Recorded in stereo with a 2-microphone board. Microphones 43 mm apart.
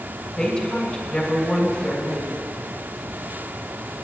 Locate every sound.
0.4 s a woman speaking: 15° left (ahead or behind), 2.5 m